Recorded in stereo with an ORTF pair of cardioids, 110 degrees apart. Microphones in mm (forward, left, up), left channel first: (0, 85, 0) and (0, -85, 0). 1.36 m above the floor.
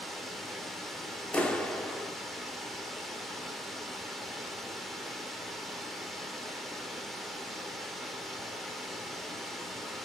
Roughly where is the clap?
Ahead.